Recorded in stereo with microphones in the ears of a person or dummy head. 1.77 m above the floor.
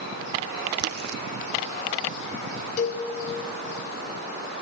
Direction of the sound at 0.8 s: 60° right (ahead or behind).